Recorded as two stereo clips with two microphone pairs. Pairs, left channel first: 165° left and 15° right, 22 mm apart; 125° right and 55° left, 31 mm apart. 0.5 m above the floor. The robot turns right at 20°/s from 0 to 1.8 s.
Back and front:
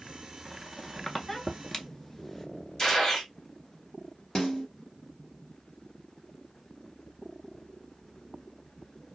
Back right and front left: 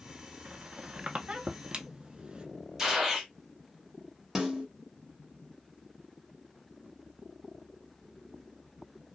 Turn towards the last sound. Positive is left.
turn(degrees=130)